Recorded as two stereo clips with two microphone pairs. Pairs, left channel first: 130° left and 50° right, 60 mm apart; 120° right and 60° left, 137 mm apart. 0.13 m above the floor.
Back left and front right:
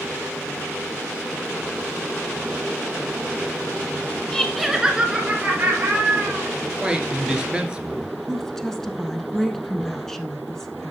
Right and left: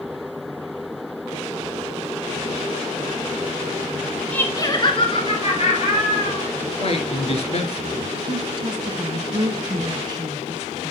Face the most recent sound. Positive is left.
turn(degrees=55)